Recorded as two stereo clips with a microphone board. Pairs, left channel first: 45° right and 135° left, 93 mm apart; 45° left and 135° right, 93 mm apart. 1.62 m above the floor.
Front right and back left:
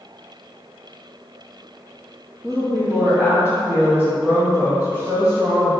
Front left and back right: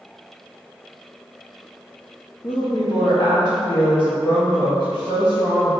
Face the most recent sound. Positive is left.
turn(degrees=60)